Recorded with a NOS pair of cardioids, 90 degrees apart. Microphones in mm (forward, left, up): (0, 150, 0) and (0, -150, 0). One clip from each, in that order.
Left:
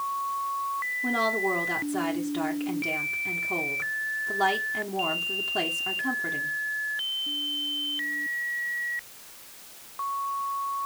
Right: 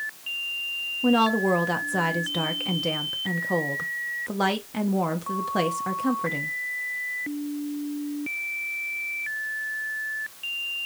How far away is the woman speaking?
About 1.3 m.